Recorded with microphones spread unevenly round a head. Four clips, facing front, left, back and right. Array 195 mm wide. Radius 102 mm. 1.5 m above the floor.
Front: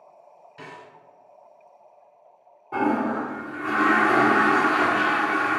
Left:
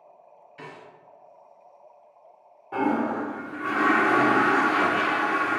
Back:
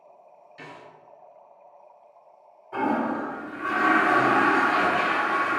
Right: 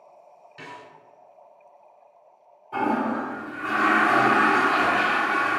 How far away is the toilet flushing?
About 1.3 m.